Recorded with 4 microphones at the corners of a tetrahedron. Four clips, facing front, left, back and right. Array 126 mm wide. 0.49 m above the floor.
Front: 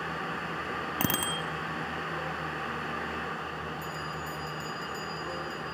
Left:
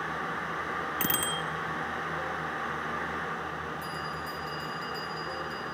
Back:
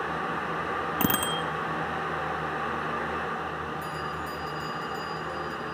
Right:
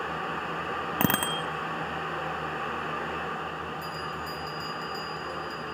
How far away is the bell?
About 7 m.